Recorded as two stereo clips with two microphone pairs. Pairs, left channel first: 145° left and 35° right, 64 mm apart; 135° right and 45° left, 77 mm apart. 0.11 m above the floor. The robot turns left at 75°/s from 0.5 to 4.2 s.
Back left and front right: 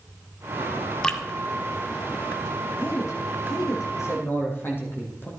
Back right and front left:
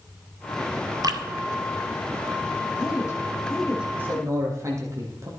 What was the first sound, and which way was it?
Dripping, 70° left.